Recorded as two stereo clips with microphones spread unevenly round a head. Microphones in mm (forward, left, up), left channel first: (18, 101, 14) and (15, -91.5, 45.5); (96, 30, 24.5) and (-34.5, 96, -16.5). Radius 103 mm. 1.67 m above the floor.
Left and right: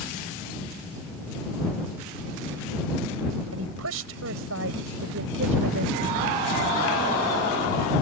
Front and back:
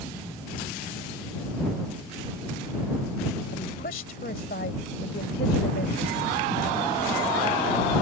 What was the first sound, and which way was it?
A woman speaking, 80° right.